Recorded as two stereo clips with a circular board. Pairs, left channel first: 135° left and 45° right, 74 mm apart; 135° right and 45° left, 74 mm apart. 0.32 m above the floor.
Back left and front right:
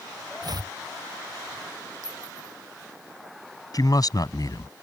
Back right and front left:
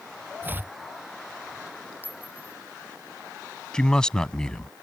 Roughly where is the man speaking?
Behind left.